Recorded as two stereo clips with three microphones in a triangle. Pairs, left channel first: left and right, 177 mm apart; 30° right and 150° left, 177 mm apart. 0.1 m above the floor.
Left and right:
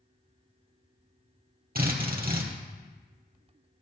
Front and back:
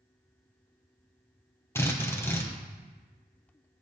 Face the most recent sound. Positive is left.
turn(degrees=-105)